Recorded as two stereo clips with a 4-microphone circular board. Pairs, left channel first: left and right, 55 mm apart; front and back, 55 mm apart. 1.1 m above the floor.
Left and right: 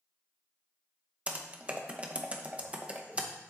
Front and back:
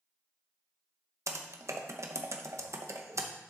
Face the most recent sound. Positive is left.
turn(degrees=-155)